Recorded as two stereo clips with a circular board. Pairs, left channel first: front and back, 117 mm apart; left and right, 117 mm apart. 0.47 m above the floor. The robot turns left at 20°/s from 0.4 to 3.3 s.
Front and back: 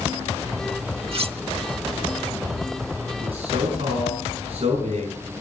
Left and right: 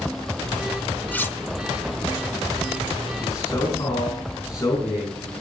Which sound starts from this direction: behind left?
A man speaking, at 3.2 s.